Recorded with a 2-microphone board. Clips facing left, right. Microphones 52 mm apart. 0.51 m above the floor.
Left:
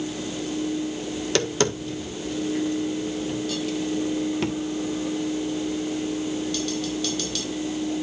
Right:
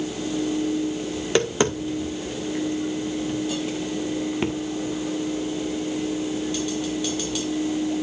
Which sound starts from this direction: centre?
Tapping, at 1.2 s.